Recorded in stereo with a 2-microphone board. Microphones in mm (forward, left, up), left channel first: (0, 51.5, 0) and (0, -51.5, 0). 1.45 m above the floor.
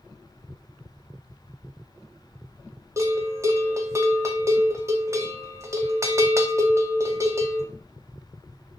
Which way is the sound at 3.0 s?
30° right (ahead or behind).